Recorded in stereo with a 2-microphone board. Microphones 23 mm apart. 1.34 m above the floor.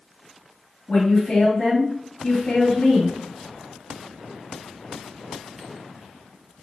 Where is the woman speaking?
45° left (ahead or behind), 2 m.